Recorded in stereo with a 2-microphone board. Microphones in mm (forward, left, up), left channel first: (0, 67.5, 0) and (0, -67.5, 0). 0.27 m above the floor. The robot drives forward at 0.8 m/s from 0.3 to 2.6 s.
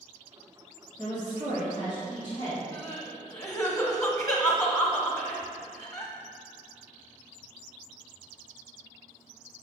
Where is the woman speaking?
30° left (ahead or behind), 1.8 m.